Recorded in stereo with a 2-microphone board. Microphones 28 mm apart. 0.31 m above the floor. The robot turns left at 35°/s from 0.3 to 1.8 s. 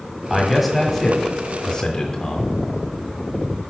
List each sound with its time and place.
0.3 s a man speaking: 15° right (ahead or behind), 1.4 m; by 2.5 s 25° left (ahead or behind), 1.4 m